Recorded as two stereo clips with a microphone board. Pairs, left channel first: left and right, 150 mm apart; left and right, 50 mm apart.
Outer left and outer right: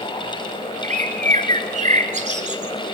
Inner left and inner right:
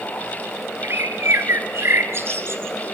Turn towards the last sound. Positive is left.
turn(degrees=-50)  # may be behind; listen again after turning